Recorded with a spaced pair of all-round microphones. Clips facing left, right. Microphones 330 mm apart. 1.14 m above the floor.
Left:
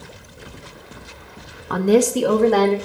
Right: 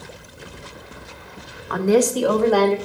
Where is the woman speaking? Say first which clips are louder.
Left 1 dB; 50° left (ahead or behind), 0.9 m; by 2.8 s 25° left (ahead or behind), 1.8 m.